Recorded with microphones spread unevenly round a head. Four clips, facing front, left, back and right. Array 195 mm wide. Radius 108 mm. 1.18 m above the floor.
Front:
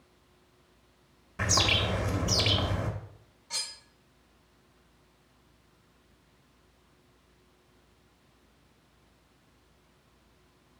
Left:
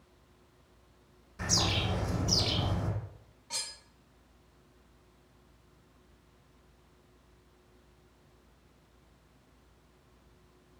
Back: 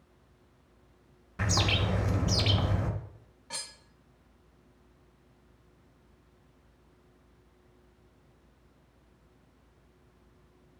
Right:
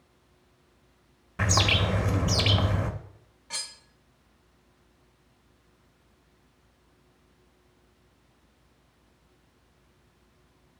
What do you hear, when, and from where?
1.4 s a bird: 65° right, 0.9 m
3.5 s cutlery clinking: 170° right, 0.9 m